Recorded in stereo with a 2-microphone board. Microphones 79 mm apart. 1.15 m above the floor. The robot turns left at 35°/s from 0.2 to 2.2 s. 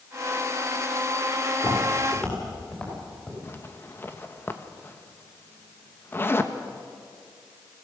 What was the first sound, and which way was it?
Footsteps, 50° left (ahead or behind).